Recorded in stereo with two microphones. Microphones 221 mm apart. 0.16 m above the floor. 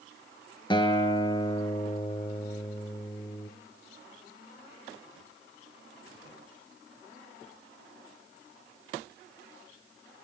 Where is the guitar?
20° left (ahead or behind), 1.2 m.